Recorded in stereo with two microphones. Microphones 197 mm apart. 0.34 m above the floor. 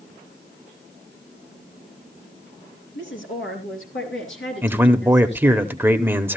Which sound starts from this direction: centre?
A man speaking, at 4.6 s.